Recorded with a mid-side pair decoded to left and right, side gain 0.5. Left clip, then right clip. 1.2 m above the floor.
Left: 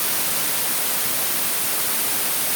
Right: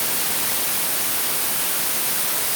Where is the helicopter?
No helicopter in this recording.